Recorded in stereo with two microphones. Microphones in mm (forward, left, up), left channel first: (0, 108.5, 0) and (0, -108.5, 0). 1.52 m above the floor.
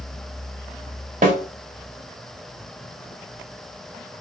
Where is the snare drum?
40° right (ahead or behind), 2 m.